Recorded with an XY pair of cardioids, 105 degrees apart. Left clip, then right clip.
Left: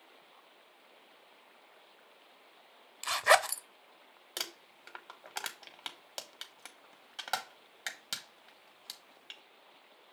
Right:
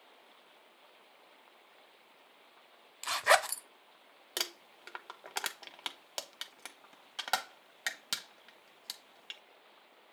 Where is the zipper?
5° left, 0.6 m.